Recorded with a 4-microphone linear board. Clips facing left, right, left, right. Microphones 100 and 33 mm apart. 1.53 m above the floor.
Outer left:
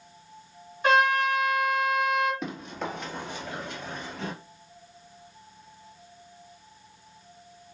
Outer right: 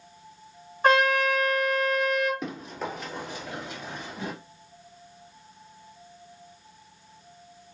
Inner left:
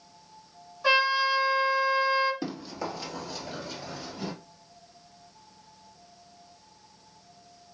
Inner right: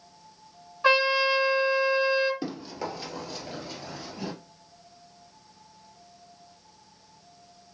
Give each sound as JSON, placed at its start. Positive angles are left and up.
{"t": 0.8, "sound": "a trumpet", "side_deg": -40, "distance_m": 1.7}
{"t": 2.4, "sound": "running footsteps", "side_deg": -5, "distance_m": 1.7}